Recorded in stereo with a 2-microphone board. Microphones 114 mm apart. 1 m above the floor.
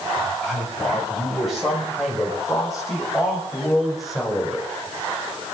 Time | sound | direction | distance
0.2 | a man speaking | centre (ahead or behind) | 6 m